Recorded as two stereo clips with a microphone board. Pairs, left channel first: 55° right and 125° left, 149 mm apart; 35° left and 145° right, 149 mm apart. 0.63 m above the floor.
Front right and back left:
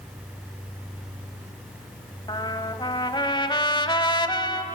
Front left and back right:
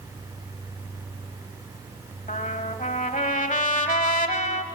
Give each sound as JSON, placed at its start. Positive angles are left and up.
{"t": 2.3, "sound": "a trumpet", "azimuth_deg": 5, "distance_m": 1.2}